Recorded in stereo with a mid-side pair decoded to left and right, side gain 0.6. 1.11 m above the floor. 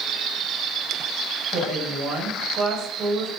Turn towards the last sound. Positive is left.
turn(degrees=-55)